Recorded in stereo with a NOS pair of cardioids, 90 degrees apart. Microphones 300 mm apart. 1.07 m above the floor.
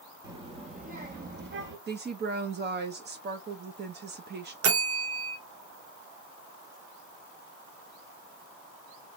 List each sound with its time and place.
0.2 s a child speaking: 15° right, 1.5 m; by 1.8 s 40° right, 2 m
1.9 s a woman speaking: 35° right, 1.0 m
4.6 s a bell: 65° right, 1.3 m